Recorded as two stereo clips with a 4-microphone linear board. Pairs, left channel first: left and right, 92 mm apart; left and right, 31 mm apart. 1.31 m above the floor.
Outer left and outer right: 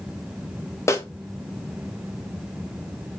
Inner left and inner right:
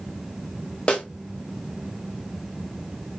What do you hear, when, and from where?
0.9 s a snare drum: 30° left (ahead or behind), 0.5 m